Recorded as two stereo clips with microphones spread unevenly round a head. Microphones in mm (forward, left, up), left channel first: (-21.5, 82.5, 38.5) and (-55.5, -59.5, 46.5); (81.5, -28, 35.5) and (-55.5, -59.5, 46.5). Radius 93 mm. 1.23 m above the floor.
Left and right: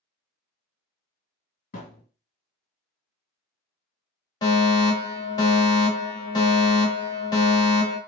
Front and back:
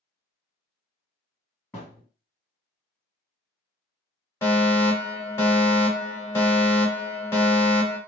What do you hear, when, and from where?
1.7 s a thud: 95° left, 1.6 m
4.4 s a fire alarm: 60° left, 1.5 m